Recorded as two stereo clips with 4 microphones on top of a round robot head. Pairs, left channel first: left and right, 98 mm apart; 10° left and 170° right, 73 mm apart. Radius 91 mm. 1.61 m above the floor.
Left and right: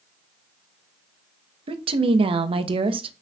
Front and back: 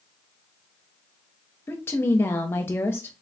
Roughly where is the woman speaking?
Ahead right.